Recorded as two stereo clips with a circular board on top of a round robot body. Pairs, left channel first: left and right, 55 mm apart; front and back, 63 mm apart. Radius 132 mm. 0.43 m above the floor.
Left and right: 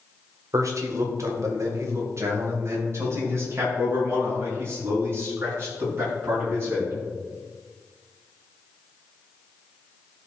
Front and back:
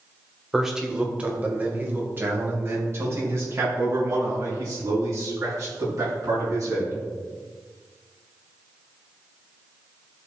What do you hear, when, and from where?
0.5 s a man speaking: 95° right, 2 m; by 6.9 s 145° right, 7.5 m